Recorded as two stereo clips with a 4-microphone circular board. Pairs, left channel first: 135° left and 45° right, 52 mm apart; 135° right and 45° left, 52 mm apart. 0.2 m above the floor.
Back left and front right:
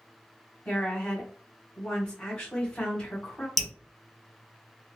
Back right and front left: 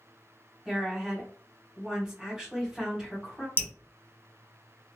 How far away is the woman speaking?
About 1.5 m.